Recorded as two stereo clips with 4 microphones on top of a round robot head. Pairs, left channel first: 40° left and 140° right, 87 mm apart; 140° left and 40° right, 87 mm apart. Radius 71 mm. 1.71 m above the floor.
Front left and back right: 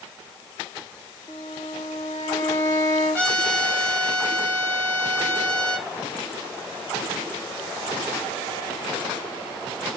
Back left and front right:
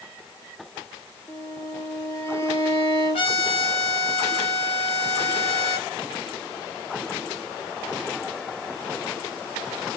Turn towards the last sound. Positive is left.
turn(degrees=120)